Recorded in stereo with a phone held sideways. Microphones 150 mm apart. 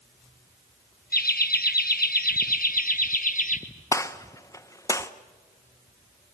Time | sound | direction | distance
1.1 | laughter | 80° left | 1.4 m
3.9 | a gunshot | 20° left (ahead or behind) | 0.9 m